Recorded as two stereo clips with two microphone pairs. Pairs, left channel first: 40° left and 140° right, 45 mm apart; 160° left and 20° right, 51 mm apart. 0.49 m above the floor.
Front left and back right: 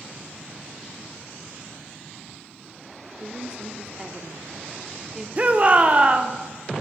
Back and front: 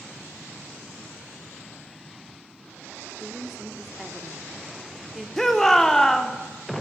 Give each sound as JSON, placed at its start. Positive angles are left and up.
{"t": 3.2, "sound": "a woman speaking", "azimuth_deg": -105, "distance_m": 0.7}
{"t": 5.4, "sound": "a shout", "azimuth_deg": -125, "distance_m": 0.9}